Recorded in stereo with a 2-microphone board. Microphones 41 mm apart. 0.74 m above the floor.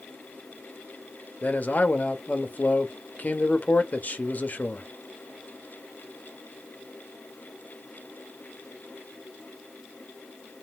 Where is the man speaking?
45° left (ahead or behind), 0.9 m.